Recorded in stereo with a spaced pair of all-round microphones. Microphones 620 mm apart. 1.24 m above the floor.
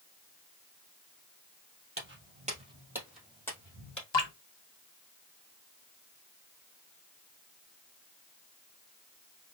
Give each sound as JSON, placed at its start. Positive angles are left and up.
{"t": 2.0, "sound": "footsteps", "side_deg": -20, "distance_m": 1.8}
{"t": 4.1, "sound": "dripping", "side_deg": 45, "distance_m": 1.0}